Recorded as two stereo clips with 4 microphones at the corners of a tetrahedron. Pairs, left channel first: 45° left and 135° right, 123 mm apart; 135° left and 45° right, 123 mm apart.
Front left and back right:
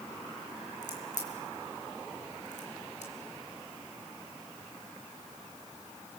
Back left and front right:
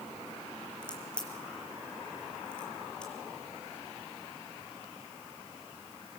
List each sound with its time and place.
0.8 s a crack: 55° left, 5 m